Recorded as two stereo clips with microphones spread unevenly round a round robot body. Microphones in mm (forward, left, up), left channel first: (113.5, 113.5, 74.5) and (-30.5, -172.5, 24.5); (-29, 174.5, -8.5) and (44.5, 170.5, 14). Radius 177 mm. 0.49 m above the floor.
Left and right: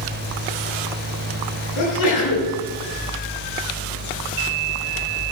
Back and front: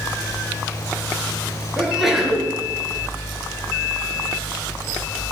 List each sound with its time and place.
1.8 s a sneeze: 85° left, 7.5 m